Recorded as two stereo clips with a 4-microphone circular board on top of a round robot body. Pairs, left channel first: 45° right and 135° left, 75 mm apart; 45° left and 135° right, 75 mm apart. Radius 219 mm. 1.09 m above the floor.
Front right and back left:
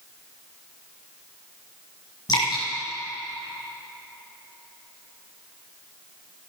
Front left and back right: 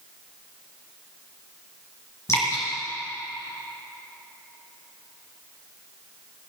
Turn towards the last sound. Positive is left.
turn(degrees=-5)